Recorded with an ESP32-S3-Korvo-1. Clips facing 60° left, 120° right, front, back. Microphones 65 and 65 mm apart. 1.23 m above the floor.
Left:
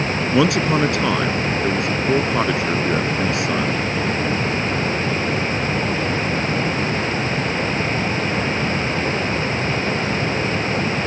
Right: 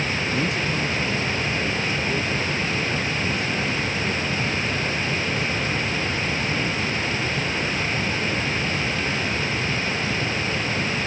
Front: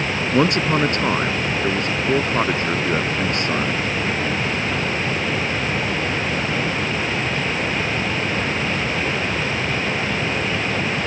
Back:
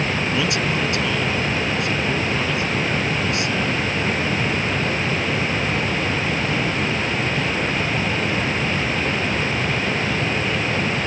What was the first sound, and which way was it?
A man speaking, 50° left.